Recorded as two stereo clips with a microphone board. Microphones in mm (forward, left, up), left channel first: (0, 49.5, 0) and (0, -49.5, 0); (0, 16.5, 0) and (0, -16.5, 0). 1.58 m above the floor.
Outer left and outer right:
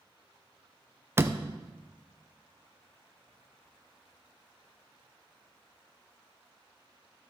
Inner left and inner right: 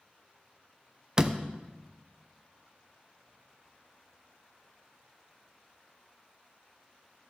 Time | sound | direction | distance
1.2 | a door slam | 25° right (ahead or behind) | 0.6 m